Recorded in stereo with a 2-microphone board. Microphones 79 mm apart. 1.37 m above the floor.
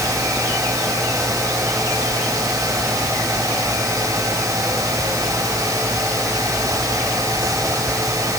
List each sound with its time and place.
Only background noise.